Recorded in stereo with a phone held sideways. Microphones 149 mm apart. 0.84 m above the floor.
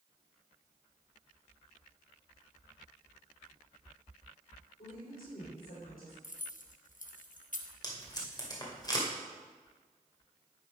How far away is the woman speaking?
About 4 m.